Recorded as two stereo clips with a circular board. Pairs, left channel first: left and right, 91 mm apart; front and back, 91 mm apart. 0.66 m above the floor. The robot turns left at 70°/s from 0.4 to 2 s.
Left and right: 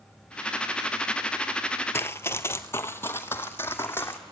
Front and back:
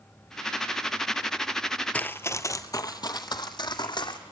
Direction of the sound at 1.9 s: 60° left.